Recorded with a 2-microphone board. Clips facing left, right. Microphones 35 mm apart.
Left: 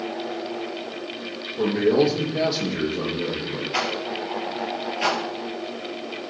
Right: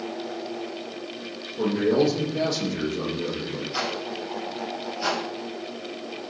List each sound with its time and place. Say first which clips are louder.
1.6 s a man speaking: left 2 dB; 30° left (ahead or behind), 4.5 m
3.7 s a rattle: left 4 dB; 55° left (ahead or behind), 3.5 m